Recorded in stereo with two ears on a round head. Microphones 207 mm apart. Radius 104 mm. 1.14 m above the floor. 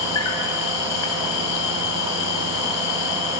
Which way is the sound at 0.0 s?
80° left.